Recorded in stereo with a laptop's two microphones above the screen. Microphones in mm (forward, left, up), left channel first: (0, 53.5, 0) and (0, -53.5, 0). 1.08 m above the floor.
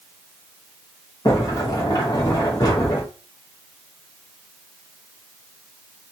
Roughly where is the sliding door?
Left.